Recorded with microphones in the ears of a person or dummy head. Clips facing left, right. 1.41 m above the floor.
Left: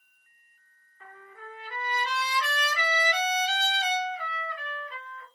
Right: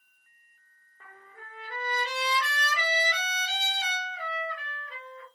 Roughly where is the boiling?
No boiling in this recording.